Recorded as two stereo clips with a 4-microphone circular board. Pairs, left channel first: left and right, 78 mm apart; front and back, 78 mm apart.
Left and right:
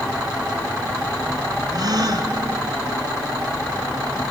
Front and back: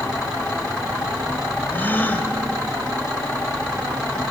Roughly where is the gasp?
Ahead right.